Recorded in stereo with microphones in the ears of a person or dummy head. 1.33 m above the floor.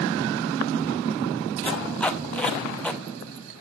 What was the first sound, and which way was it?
Tape being pulled, 10° left (ahead or behind).